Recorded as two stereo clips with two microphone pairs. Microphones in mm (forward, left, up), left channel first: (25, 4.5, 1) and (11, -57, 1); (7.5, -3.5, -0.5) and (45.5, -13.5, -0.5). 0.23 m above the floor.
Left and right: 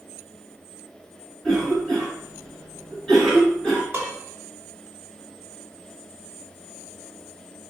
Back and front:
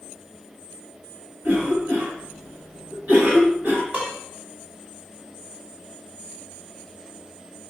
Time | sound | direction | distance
1.4 | a cough | straight ahead | 2.5 m
3.9 | dishes clattering | 45° right | 1.6 m